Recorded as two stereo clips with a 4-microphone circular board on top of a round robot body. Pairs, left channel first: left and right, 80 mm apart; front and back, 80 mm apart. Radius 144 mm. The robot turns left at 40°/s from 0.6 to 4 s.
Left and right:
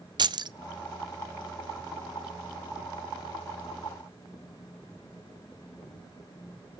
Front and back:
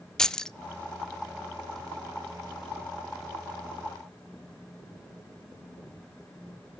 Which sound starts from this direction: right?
Keys jangling, at 0.2 s.